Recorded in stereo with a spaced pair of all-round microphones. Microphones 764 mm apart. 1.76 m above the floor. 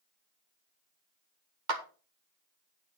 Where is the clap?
70° right (ahead or behind), 1.8 m.